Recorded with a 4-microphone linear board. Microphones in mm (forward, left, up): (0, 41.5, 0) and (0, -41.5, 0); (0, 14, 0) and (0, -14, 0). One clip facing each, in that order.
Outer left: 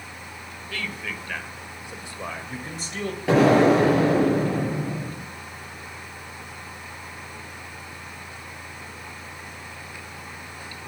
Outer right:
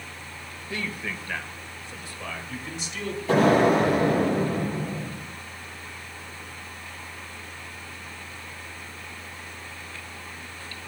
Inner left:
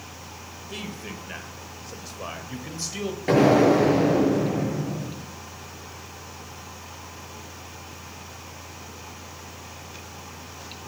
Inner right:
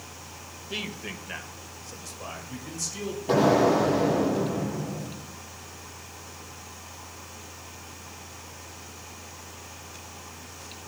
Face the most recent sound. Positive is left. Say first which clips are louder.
# outer left 2 dB, inner left 3 dB
turn(degrees=80)